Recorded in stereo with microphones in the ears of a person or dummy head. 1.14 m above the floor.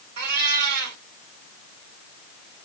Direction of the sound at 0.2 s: 60° right (ahead or behind).